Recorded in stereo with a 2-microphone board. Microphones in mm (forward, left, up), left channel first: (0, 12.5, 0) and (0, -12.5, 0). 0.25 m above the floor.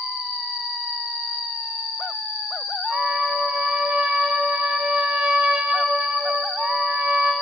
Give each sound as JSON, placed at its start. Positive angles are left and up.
{"t": 0.0, "sound": "an insect", "side_deg": -65, "distance_m": 1.0}
{"t": 2.9, "sound": "a trumpet", "side_deg": -45, "distance_m": 2.0}